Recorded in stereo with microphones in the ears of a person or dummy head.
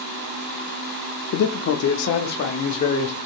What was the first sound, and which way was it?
A man speaking, 75° left (ahead or behind).